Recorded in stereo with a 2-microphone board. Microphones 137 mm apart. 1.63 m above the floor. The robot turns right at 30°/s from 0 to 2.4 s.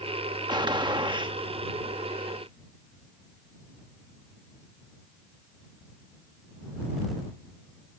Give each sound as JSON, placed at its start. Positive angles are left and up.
{"t": 0.5, "sound": "a gunshot", "side_deg": -30}